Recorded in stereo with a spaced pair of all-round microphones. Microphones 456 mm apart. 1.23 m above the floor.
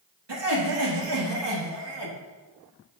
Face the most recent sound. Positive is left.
turn(degrees=-65)  # may be behind; listen again after turning